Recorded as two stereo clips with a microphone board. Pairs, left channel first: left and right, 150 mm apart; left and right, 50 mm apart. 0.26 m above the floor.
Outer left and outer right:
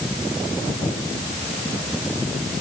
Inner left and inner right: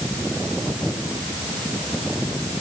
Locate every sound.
Only background noise.